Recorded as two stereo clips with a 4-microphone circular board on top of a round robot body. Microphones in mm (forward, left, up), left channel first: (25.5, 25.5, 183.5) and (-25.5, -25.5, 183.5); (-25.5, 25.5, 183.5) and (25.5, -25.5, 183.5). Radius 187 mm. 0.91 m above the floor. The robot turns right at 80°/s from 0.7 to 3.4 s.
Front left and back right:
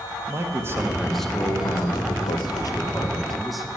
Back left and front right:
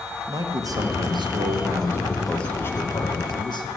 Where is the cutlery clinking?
No cutlery clinking in this recording.